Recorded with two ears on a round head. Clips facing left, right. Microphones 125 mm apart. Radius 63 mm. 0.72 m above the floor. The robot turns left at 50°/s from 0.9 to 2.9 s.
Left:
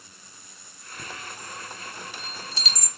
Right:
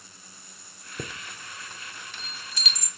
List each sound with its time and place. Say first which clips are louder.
1.0 s a chime: right 1 dB; 50° right (ahead or behind), 0.6 m; by 2.9 s 45° left (ahead or behind), 0.6 m